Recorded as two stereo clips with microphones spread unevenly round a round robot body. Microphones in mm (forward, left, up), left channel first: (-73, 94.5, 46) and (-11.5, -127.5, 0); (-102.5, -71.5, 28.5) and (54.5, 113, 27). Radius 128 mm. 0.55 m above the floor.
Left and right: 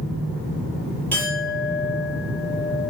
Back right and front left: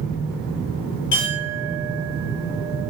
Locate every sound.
1.1 s a clink: 170° right, 9 m